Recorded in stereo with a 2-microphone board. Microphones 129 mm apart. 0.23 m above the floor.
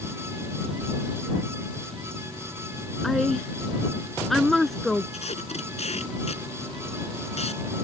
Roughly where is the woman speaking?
Centre.